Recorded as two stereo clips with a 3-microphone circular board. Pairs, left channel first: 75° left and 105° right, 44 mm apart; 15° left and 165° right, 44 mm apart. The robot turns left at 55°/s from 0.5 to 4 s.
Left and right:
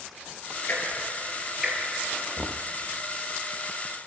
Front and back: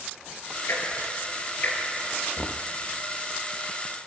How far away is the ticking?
About 5 m.